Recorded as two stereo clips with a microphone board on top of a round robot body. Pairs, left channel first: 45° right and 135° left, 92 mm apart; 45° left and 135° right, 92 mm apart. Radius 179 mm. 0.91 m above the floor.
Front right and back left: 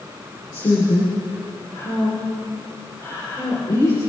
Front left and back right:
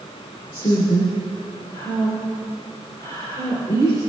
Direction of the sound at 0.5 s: 10° left.